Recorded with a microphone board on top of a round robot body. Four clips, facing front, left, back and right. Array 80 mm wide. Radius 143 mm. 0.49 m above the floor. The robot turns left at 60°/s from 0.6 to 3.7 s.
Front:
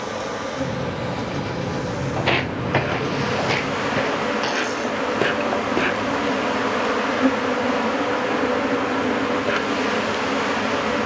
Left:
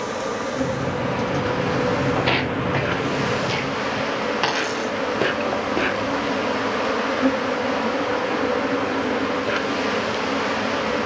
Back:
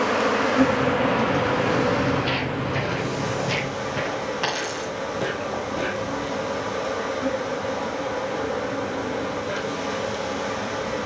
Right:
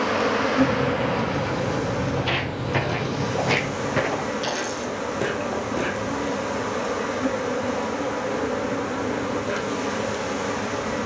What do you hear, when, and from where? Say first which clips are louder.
0.0 s an insect: right 4 dB, back 6 dB; 145° right, 2.0 m; by 11.1 s 30° left, 2.0 m
2.2 s footsteps: left 5 dB, front 2 dB; 40° left, 1.0 m; by 4.3 s 60° right, 2.5 m
4.4 s a dropped coin: left 4 dB, front 4 dB; 95° left, 2.5 m